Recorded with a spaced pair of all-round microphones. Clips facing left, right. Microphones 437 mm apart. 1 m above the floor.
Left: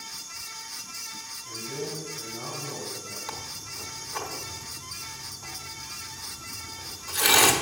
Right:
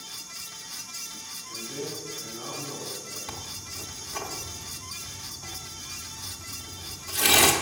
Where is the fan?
50° right (ahead or behind), 0.8 m.